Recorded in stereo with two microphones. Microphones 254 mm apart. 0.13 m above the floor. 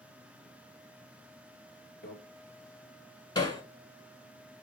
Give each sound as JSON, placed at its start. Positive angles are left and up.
{"t": 2.0, "sound": "a microwave", "side_deg": 15, "distance_m": 1.9}
{"t": 3.4, "sound": "hammering", "side_deg": 20, "distance_m": 0.7}